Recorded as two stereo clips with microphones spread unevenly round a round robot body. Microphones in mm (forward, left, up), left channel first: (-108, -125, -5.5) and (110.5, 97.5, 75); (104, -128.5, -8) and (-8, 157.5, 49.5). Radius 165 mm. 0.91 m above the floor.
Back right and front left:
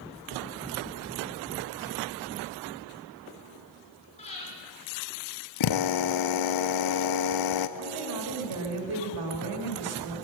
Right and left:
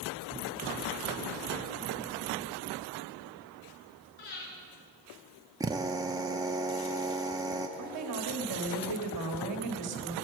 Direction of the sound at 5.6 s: 170° right.